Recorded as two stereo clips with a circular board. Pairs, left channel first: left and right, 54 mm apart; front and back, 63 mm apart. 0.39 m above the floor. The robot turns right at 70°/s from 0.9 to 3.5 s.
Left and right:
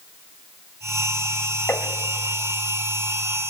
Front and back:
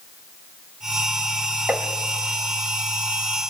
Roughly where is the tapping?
Behind left.